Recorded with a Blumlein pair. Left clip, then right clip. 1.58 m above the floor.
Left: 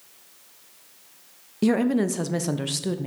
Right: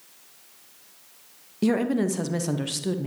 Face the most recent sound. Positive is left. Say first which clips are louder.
# left 2 dB
turn(degrees=5)